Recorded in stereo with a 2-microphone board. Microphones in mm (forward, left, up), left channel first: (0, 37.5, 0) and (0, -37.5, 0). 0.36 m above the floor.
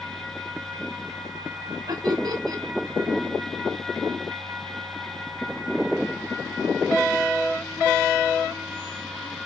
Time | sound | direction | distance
1.9 | laughter | 65° right (ahead or behind) | 2.5 m